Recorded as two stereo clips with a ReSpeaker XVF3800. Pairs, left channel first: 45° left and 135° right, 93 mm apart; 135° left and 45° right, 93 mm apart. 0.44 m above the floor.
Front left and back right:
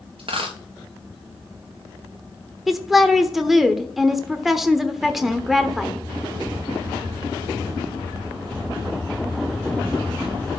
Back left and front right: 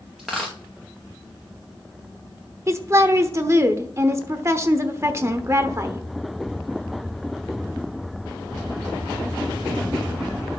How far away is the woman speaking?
About 0.9 m.